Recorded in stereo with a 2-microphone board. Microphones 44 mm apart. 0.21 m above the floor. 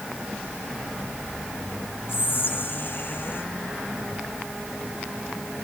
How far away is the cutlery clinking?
I don't hear cutlery clinking.